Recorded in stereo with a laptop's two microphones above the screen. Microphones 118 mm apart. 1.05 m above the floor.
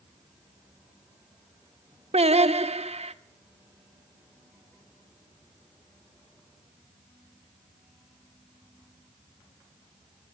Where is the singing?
65° right (ahead or behind), 0.8 m.